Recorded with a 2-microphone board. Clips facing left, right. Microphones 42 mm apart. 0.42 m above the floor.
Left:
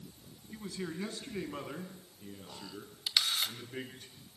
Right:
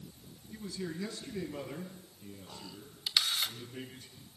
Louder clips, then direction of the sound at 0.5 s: Even; 30° left (ahead or behind).